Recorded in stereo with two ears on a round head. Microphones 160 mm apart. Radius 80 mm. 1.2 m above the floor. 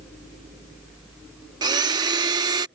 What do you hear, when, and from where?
1.6 s a blender: 25° right (ahead or behind)